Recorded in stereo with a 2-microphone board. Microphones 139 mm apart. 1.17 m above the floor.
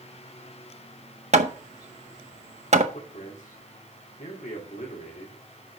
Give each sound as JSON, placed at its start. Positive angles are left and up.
{"t": 1.3, "sound": "hammering", "side_deg": -55, "distance_m": 0.8}
{"t": 2.9, "sound": "a man speaking", "side_deg": 70, "distance_m": 2.5}